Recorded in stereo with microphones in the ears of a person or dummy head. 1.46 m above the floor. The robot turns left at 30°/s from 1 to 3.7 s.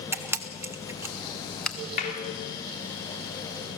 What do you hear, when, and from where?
0.1 s a camera shutter: 15° right (ahead or behind), 1.0 m; by 1.8 s 10° left (ahead or behind), 1.0 m
2.0 s a clap: 50° left (ahead or behind), 4 m; by 2.2 s 45° left (ahead or behind), 4 m